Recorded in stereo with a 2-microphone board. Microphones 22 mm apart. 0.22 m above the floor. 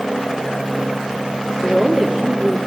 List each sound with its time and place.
1.6 s a woman speaking: 50° right (ahead or behind), 3.5 m